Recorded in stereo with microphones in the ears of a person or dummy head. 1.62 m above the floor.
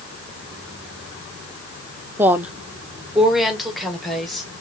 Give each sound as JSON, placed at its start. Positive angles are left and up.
{"t": 2.2, "sound": "a woman speaking", "side_deg": -10, "distance_m": 0.5}